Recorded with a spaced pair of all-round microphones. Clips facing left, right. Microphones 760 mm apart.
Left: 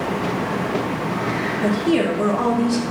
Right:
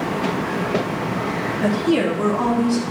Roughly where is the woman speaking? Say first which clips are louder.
Even; centre.